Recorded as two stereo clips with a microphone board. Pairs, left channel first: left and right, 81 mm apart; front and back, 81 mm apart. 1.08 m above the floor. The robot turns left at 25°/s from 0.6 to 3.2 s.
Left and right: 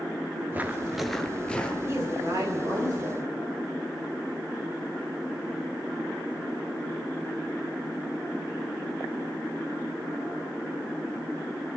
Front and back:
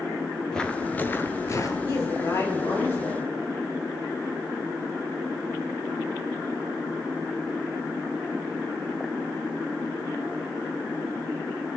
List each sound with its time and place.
0.5 s footsteps: 70° right, 1.1 m; by 1.8 s 20° left, 1.5 m
1.9 s a woman speaking: 35° right, 5.5 m; by 3.3 s 70° right, 5.5 m